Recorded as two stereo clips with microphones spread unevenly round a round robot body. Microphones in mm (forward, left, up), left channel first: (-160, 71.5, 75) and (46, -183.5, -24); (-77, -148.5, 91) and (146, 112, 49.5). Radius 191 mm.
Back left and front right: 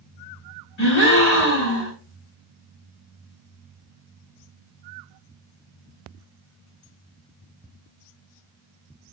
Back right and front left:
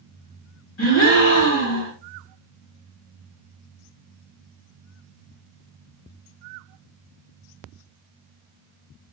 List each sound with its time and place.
0.8 s a gasp: 170° left, 3 m